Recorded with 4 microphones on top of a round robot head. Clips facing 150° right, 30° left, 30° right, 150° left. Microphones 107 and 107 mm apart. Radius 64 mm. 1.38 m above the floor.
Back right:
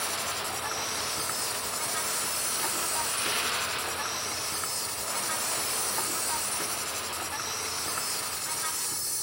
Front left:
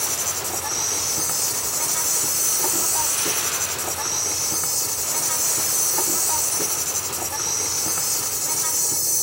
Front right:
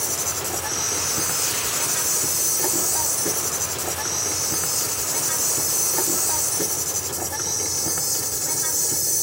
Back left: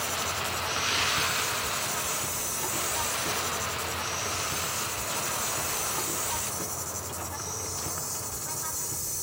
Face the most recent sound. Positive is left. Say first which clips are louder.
# front left 2 dB, front right 1 dB
turn(degrees=-20)